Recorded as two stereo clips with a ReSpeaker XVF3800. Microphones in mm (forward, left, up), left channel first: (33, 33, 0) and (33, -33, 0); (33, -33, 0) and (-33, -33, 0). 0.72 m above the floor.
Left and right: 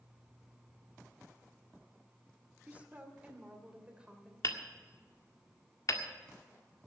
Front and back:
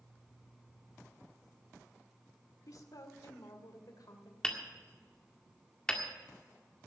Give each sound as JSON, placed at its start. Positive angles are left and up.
{"t": 2.7, "sound": "a woman speaking", "azimuth_deg": -25, "distance_m": 1.8}
{"t": 4.4, "sound": "hammering", "azimuth_deg": 75, "distance_m": 1.6}